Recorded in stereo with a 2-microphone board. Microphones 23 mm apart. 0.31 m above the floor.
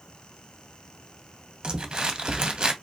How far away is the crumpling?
About 0.5 m.